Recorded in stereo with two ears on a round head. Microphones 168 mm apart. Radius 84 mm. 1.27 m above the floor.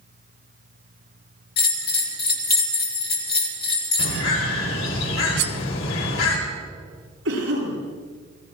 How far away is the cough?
About 9.5 m.